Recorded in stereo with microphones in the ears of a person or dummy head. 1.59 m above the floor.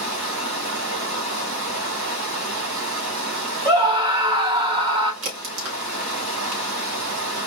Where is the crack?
75° right (ahead or behind), 2.5 m.